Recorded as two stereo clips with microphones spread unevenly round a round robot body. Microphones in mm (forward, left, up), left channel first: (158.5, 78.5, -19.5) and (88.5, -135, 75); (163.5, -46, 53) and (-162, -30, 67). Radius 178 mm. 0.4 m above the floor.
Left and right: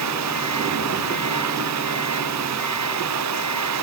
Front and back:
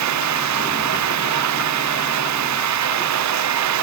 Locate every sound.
0.0 s running water: 145° right